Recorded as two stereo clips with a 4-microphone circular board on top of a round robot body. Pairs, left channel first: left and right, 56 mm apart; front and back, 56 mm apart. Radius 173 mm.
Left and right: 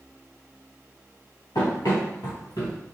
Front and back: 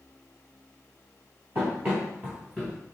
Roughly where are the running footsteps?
Behind left.